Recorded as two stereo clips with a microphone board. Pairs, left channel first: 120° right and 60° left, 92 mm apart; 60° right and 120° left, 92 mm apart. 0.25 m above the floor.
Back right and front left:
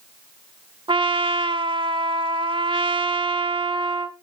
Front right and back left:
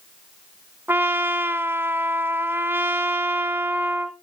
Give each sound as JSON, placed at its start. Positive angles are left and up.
{"t": 0.9, "sound": "a trumpet", "azimuth_deg": 55, "distance_m": 0.6}